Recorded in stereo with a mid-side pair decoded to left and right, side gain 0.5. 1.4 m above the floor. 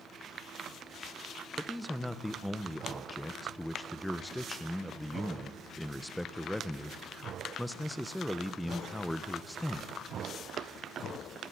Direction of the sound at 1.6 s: 5° left.